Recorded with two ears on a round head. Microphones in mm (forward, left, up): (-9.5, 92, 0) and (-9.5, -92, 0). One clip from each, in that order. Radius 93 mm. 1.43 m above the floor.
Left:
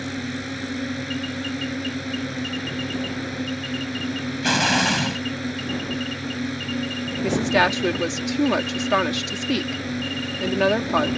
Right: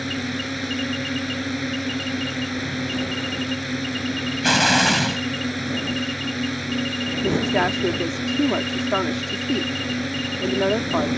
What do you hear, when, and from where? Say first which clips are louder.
0.0 s a drone: right 3 dB; 15° right (ahead or behind)
4.4 s an explosion: right 2 dB; 10° right (ahead or behind)
7.2 s a woman speaking: left 3 dB; 80° left